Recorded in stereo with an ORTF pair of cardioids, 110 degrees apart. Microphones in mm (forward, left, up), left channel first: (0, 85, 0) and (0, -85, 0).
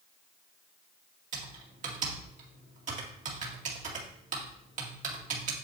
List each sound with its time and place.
1.3 s typing on a keyboard: 50° right, 2 m